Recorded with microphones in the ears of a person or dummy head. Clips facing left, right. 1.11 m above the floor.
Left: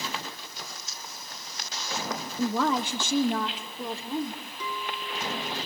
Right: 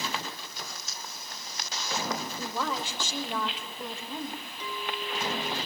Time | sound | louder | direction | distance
2.4 | a woman speaking | left 7 dB | 60° left (ahead or behind) | 1.8 m
4.6 | a clink | even | 80° left | 6 m